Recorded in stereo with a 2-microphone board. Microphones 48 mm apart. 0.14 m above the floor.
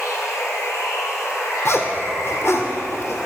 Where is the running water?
70° left (ahead or behind), 3.5 m.